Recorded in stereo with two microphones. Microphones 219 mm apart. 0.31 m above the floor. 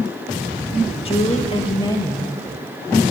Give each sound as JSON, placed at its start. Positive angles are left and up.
{"t": 1.1, "sound": "a woman speaking", "side_deg": 25, "distance_m": 1.0}